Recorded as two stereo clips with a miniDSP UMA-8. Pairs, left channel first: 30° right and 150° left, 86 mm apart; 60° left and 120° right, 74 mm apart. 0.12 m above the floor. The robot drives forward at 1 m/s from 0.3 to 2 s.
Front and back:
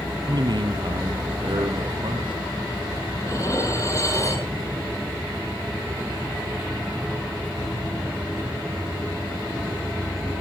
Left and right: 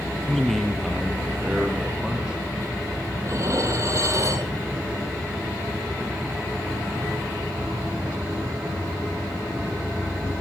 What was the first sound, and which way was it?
A man speaking, 140° left.